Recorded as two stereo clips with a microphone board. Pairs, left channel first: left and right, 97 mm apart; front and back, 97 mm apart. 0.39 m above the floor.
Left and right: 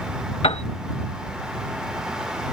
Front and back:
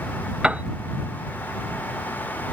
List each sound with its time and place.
0.4 s a piano: 100° left